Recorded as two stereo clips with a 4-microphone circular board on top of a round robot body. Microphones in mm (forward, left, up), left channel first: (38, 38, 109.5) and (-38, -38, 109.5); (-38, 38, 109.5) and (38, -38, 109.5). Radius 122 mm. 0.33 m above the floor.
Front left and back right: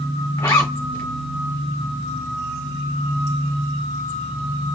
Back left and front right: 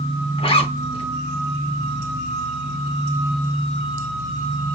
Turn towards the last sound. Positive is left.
turn(degrees=110)